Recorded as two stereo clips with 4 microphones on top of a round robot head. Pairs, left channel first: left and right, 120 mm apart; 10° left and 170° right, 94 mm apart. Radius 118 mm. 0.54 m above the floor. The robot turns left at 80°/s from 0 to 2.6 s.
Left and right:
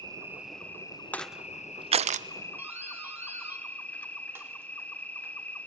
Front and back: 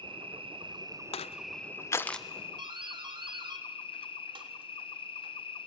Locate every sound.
0.0 s an insect: 140° right, 1.6 m; by 5.7 s 15° left, 1.6 m
1.1 s crushing: 15° left, 0.6 m; by 2.3 s 80° right, 0.6 m
2.6 s a doorbell: 160° right, 3 m